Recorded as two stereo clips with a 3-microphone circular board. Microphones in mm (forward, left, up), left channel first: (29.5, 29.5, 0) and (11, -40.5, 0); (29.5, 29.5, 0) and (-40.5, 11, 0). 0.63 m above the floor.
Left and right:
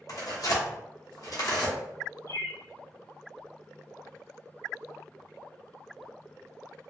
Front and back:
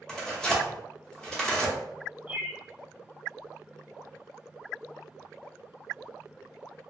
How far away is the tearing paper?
About 0.7 m.